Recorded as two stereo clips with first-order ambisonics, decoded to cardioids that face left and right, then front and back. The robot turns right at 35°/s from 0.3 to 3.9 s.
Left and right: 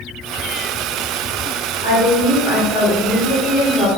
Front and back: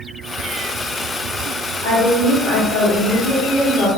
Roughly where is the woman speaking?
Ahead left.